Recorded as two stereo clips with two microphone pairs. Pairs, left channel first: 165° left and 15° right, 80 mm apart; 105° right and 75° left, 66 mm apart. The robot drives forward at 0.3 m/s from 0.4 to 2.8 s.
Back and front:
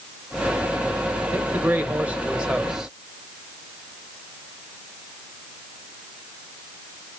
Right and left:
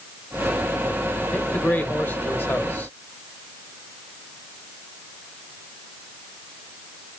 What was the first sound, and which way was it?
A man speaking, 55° right.